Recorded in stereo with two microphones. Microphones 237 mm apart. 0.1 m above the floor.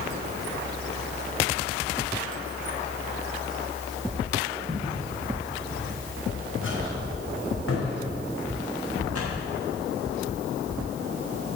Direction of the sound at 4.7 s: 35° left (ahead or behind).